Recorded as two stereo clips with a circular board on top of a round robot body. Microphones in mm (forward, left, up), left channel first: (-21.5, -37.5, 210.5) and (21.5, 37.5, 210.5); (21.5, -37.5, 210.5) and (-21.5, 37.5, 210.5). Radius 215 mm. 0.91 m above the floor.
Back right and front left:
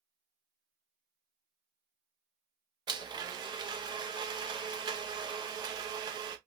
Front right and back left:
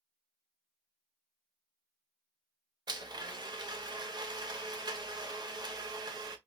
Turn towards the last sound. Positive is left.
turn(degrees=90)